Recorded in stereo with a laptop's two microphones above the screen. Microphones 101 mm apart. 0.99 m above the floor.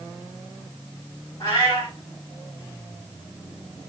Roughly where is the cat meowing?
Left.